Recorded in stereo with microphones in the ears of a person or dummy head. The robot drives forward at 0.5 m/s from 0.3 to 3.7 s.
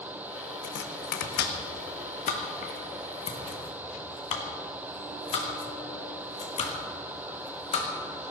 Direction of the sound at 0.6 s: 65° left (ahead or behind).